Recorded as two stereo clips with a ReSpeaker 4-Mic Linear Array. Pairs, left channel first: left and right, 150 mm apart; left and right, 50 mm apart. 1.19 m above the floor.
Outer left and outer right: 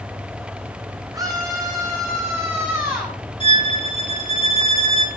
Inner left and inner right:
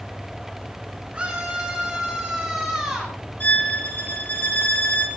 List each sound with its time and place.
1.1 s a scream: 25° right (ahead or behind), 7 m; by 3.2 s 10° right (ahead or behind), 7.5 m
3.4 s a violin: 35° left (ahead or behind), 3.5 m